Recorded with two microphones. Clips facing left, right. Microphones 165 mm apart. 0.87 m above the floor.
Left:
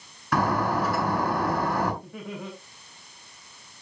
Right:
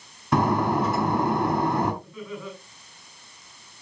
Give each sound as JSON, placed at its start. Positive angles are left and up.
{"t": 0.3, "sound": "breaking glass", "side_deg": -25, "distance_m": 5.5}
{"t": 2.0, "sound": "laughter", "side_deg": 75, "distance_m": 6.5}